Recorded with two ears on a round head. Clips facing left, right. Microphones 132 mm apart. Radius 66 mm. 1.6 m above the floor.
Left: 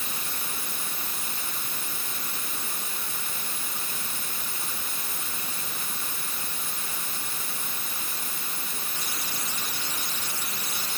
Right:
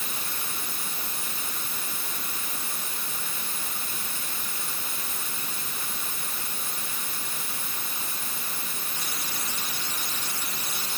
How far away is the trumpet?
I don't hear a trumpet.